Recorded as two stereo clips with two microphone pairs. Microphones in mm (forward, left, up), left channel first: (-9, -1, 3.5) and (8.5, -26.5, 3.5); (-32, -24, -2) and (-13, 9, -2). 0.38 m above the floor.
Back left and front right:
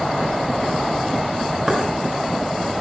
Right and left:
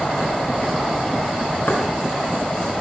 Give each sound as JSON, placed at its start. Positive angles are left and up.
{"t": 1.7, "sound": "knocking", "azimuth_deg": -135, "distance_m": 3.0}